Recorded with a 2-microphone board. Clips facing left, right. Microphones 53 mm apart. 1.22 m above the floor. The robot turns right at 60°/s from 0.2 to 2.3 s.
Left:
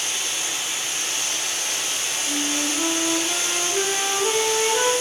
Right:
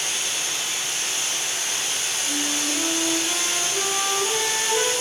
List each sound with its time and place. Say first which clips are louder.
0.0 s running water: even; straight ahead, 1.7 m; by 5.0 s 125° left, 1.7 m
2.3 s a flute: left 2 dB; 15° left (ahead or behind), 1.0 m; by 4.9 s 20° left (ahead or behind), 1.0 m